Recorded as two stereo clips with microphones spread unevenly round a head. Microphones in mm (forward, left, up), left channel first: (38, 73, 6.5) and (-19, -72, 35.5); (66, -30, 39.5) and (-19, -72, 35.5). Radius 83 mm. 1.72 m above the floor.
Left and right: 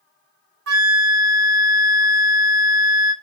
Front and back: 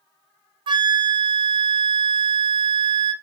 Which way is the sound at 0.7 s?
115° right.